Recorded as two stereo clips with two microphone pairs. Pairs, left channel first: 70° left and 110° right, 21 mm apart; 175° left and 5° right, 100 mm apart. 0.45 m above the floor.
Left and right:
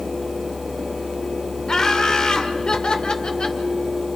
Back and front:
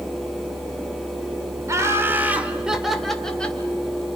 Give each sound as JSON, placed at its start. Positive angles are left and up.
{"t": 1.7, "sound": "laughter", "azimuth_deg": 35, "distance_m": 1.8}